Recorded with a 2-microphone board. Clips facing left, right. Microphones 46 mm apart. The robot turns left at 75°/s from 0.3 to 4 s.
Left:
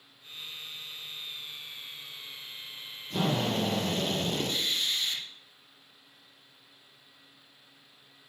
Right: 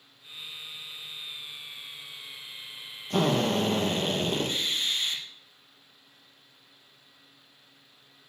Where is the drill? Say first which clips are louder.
Right 4 dB; 65° right, 3 m; by 5.2 s 135° right, 3 m.